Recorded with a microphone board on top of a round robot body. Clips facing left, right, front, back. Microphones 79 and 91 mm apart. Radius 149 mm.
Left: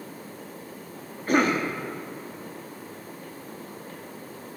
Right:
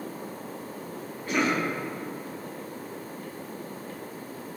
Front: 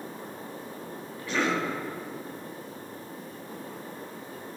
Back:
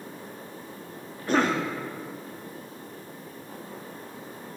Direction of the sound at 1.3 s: 135° left.